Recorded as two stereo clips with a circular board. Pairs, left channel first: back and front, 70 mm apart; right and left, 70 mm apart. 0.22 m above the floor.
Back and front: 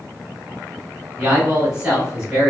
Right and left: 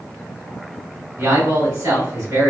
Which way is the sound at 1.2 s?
70° left.